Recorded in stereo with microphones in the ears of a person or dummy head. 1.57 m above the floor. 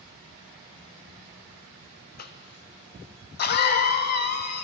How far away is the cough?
About 0.5 m.